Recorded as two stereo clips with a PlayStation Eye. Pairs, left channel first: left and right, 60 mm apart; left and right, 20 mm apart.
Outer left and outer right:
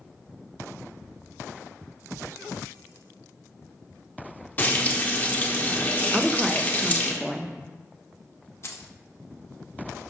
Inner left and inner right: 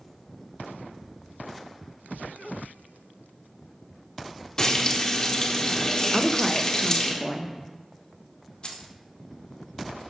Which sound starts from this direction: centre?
A woman speaking, at 6.1 s.